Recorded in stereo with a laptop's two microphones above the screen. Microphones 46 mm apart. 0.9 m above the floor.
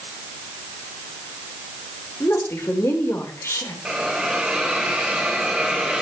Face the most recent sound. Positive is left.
turn(degrees=-15)  # may be behind; listen again after turning